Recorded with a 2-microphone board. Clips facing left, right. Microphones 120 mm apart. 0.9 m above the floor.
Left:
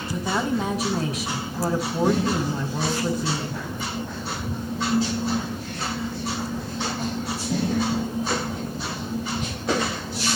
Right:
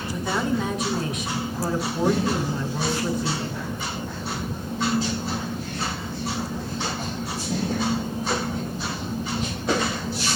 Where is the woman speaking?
30° left (ahead or behind), 5.5 m.